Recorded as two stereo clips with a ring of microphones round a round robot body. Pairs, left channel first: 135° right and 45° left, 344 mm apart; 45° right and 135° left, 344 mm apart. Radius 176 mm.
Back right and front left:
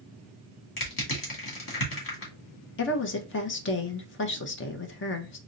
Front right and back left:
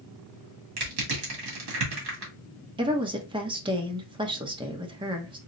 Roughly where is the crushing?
Behind.